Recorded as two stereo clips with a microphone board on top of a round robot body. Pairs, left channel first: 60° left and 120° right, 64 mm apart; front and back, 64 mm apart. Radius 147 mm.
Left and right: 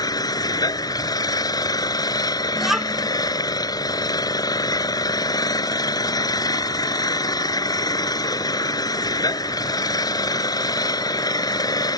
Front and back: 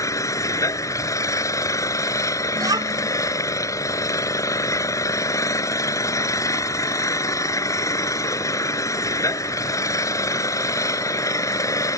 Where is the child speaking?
155° left.